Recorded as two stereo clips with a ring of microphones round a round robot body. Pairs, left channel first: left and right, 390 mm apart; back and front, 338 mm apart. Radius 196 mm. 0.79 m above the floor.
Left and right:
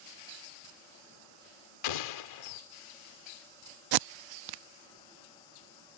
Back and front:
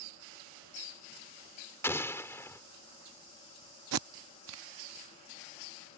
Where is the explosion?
95° left.